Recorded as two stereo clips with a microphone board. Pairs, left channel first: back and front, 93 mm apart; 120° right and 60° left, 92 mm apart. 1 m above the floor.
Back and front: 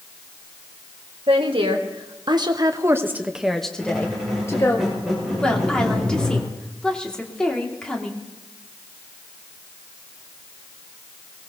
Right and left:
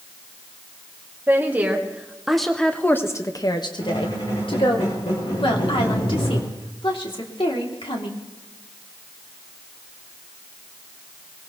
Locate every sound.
1.3 s a woman speaking: 5° right, 2.0 m; by 4.8 s 130° right, 1.8 m
3.8 s a squeak: 90° right, 5 m
5.4 s a woman speaking: 100° right, 2.5 m